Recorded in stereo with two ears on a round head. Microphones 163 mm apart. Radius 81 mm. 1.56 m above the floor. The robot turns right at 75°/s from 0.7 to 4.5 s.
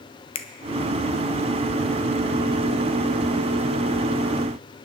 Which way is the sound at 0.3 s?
30° left (ahead or behind).